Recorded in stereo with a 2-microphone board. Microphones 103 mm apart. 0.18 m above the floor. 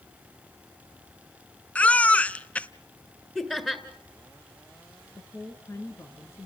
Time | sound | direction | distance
1.8 | a baby crying | 15° left (ahead or behind) | 0.5 m
3.4 | laughter | 5° left (ahead or behind) | 2 m
5.2 | a woman speaking | 25° left (ahead or behind) | 2.5 m